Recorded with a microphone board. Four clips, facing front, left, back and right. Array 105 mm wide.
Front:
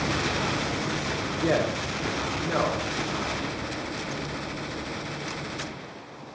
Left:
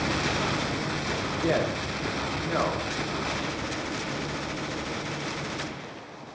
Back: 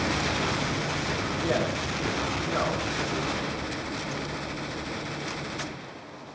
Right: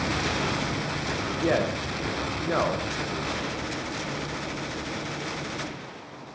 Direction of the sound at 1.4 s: 60° right.